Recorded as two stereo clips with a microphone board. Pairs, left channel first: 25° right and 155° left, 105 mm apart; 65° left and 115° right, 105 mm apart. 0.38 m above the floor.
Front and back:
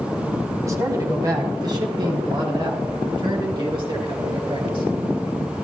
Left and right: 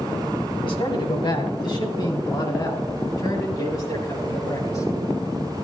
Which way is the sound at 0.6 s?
100° left.